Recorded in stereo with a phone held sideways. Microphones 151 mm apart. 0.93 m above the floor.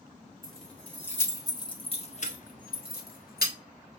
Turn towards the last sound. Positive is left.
turn(degrees=80)